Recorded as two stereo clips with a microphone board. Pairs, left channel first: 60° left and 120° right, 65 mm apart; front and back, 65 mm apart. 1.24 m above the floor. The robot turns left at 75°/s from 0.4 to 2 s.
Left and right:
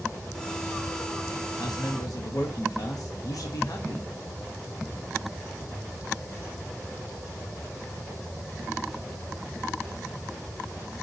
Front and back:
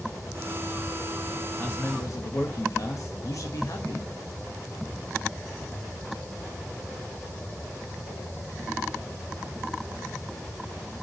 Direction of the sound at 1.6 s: 65° left.